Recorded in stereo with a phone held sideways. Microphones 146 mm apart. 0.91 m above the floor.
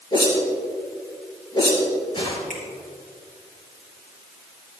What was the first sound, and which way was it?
A whoosh, 35° left (ahead or behind).